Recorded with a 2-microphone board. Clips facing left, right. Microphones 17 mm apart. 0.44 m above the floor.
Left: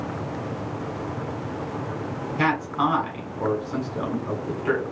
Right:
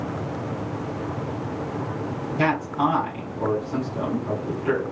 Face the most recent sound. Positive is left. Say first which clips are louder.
# even
turn(degrees=15)  # may be behind; listen again after turning